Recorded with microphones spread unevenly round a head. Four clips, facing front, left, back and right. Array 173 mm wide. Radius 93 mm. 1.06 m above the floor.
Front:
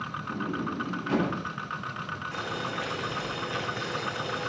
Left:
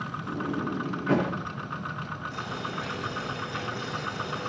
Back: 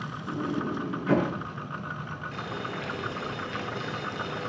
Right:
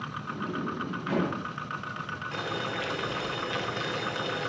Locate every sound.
0.3 s a sliding door: 145° left, 7 m
2.3 s boiling: 80° right, 5.5 m